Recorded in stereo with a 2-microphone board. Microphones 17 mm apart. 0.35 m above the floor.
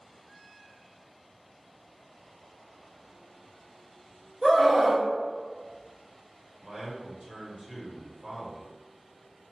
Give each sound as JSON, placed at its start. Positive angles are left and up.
{"t": 4.4, "sound": "a scream", "side_deg": 5, "distance_m": 1.6}
{"t": 6.6, "sound": "a man speaking", "side_deg": -30, "distance_m": 1.1}